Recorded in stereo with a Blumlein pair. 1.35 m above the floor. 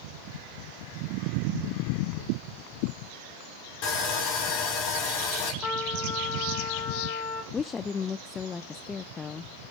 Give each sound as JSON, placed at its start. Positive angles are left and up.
{"t": 3.8, "sound": "sawing", "azimuth_deg": 40, "distance_m": 6.0}
{"t": 5.6, "sound": "a trumpet", "azimuth_deg": 30, "distance_m": 1.8}
{"t": 7.5, "sound": "a woman speaking", "azimuth_deg": 20, "distance_m": 0.5}